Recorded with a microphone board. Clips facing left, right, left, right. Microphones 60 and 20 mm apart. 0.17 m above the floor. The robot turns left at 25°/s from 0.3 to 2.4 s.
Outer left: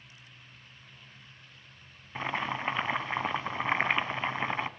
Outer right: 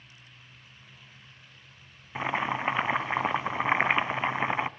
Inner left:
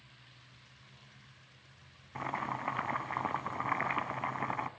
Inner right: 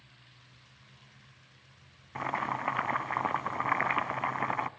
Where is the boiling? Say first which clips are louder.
Outer right 4 dB, inner right 4 dB; 15° right (ahead or behind), 0.6 m.